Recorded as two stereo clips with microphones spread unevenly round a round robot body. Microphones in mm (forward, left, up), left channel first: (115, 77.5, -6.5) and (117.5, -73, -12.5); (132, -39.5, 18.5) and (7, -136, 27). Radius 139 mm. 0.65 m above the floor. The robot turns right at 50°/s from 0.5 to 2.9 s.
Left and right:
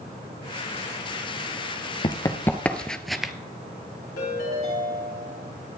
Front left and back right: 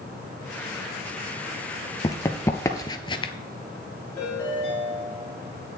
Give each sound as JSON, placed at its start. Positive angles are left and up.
{"t": 2.0, "sound": "running footsteps", "azimuth_deg": 95, "distance_m": 0.7}
{"t": 4.2, "sound": "a ringtone", "azimuth_deg": 115, "distance_m": 3.0}